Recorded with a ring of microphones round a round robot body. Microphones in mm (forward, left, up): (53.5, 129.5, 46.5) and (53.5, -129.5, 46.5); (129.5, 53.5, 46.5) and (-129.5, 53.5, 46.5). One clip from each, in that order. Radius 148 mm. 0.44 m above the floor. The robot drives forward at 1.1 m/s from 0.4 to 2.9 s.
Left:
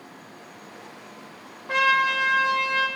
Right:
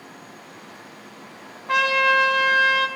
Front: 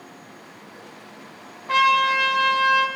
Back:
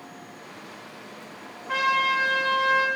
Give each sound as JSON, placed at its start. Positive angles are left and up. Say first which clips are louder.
{"t": 1.7, "sound": "a trumpet", "louder": "right 2 dB, front 5 dB", "azimuth_deg": -50, "distance_m": 3.0}